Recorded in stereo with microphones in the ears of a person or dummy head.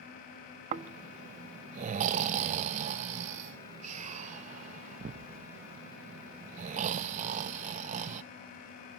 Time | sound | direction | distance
0.7 | snoring | 35° right (ahead or behind) | 0.5 m